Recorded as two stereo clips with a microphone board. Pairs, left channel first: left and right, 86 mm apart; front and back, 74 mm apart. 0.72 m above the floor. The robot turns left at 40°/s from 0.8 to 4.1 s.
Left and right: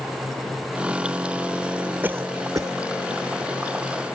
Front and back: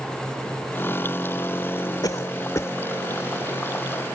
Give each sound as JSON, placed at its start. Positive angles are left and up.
{"t": 2.0, "sound": "a cough", "azimuth_deg": -25}